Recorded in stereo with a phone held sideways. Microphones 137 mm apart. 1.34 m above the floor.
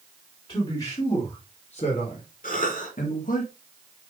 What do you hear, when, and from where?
0.5 s a man speaking: 45° left (ahead or behind), 4 m; by 3.4 s 80° left, 2 m
2.4 s a cough: 90° left, 4 m